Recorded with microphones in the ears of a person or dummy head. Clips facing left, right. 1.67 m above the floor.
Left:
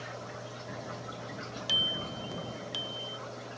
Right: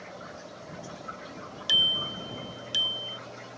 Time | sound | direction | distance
1.7 | a bicycle bell | 20° right (ahead or behind) | ?